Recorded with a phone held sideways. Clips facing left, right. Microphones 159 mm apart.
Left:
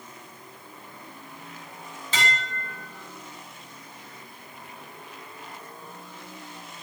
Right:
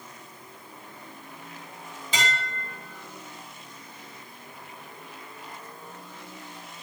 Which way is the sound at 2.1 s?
15° right (ahead or behind).